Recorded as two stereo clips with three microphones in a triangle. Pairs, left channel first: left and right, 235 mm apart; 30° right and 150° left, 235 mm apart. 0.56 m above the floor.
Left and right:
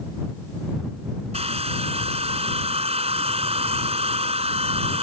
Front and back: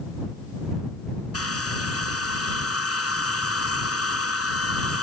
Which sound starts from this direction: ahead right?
A hair dryer, at 1.3 s.